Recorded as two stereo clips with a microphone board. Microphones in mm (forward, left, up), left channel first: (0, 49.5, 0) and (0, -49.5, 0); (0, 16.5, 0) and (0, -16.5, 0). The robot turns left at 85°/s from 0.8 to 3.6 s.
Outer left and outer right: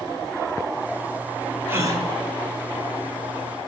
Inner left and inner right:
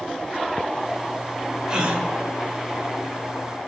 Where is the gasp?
25° right, 2.0 m; by 2.0 s 55° right, 2.0 m.